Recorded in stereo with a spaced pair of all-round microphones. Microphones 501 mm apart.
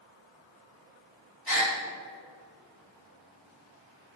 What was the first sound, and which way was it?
A gasp, 45° left (ahead or behind).